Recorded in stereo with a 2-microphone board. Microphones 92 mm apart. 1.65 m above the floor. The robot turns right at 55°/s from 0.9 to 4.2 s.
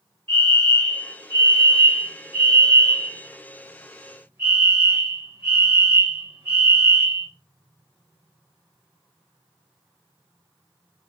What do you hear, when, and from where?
0.3 s a fire alarm: 25° left, 5.5 m; by 7.3 s 155° right, 5.5 m